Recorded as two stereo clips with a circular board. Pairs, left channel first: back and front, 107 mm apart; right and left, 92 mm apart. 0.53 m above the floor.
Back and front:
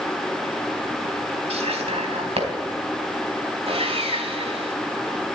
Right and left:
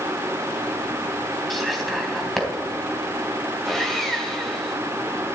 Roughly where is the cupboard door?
No cupboard door in this recording.